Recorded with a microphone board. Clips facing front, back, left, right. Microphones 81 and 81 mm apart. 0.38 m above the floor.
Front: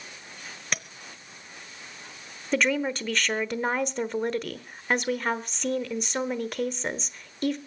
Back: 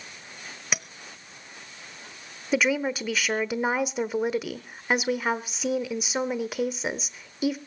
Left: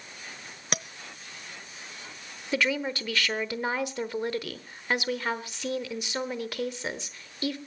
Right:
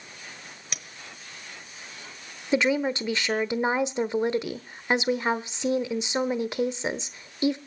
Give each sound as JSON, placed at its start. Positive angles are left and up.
{"t": 0.7, "sound": "a clink", "azimuth_deg": 100, "distance_m": 0.9}
{"t": 2.5, "sound": "a woman speaking", "azimuth_deg": -110, "distance_m": 1.0}